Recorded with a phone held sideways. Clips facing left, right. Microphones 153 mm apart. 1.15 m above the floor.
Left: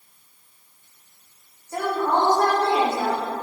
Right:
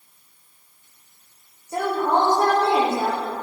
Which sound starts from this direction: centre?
A woman speaking, at 1.7 s.